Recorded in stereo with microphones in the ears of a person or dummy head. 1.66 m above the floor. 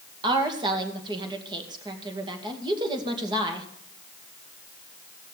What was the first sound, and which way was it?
A woman speaking, 20° right (ahead or behind).